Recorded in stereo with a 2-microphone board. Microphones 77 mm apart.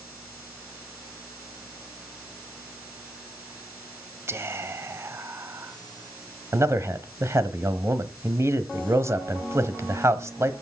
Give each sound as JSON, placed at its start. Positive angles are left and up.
{"t": 4.3, "sound": "whispering", "side_deg": -35, "distance_m": 1.1}
{"t": 6.5, "sound": "a man speaking", "side_deg": -35, "distance_m": 1.2}